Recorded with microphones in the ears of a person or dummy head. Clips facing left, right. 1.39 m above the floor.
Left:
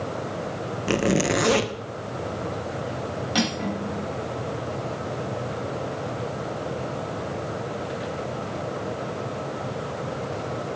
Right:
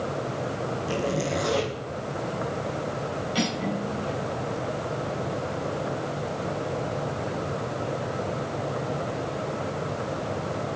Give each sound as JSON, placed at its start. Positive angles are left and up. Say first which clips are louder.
{"t": 0.9, "sound": "a zipper", "louder": "left 6 dB", "side_deg": 75, "distance_m": 0.9}
{"t": 3.4, "sound": "cutlery clinking", "louder": "left 2 dB", "side_deg": 70, "distance_m": 5.0}